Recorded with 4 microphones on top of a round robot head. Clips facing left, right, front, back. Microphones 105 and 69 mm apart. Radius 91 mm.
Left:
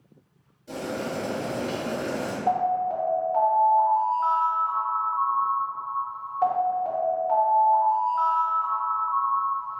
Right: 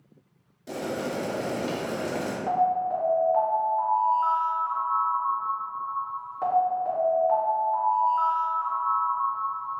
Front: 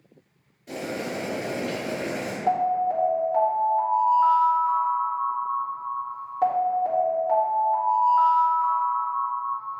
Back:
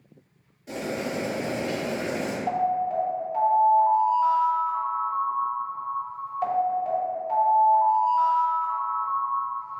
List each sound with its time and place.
0.7 s boiling: 95° right, 1.0 m
2.5 s an alarm: straight ahead, 1.9 m